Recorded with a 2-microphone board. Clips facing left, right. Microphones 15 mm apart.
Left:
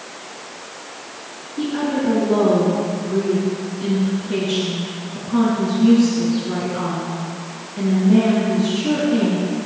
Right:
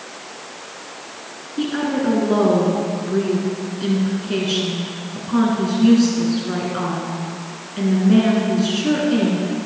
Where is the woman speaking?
35° right (ahead or behind), 1.7 m.